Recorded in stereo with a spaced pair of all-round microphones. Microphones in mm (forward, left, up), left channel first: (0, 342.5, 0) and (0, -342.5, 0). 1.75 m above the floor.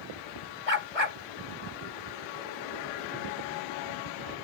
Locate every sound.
0.7 s a dog barking: 55° left (ahead or behind)